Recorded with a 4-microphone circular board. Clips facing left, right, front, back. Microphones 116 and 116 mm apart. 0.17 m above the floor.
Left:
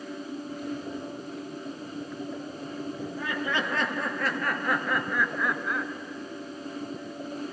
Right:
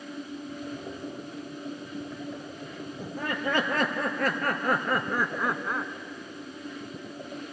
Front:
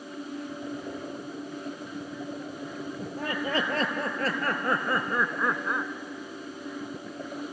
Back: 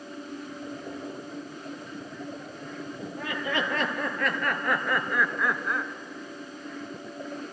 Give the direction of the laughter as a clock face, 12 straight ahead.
2 o'clock.